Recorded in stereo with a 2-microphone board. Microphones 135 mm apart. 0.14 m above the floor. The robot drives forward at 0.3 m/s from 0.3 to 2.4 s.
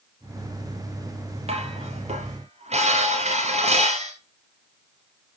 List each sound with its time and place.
1.5 s dishes clattering: 50° right (ahead or behind), 2.5 m; by 4.1 s 55° right (ahead or behind), 2 m